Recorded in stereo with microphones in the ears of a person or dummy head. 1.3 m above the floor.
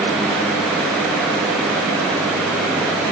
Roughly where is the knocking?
No knocking in this recording.